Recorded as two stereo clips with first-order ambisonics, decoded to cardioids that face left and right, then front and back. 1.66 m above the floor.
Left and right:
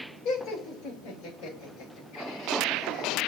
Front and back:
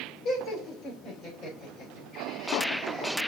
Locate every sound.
0.2 s laughter: 45° left, 6.5 m; by 3.1 s 75° left, 5 m